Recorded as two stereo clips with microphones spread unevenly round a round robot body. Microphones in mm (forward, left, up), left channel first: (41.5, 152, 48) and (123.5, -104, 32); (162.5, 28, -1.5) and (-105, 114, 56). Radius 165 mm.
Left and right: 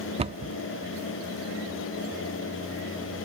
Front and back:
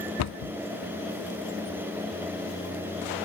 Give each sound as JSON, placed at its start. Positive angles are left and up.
{"t": 0.2, "sound": "a cupboard door", "azimuth_deg": -5}